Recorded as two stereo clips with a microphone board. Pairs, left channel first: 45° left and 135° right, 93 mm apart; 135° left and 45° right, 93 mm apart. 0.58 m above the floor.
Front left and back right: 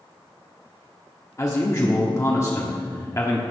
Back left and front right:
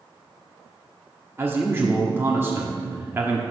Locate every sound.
1.4 s a man speaking: 5° left, 1.1 m